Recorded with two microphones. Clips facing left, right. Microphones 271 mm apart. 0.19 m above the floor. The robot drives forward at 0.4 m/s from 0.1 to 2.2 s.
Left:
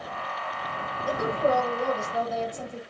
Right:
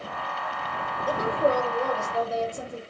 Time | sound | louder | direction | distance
1.1 | a woman speaking | right 1 dB | 40° right (ahead or behind) | 5 m